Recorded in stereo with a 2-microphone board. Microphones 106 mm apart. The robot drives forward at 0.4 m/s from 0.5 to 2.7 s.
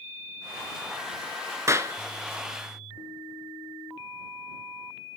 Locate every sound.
1.7 s a clap: 25° right (ahead or behind), 0.9 m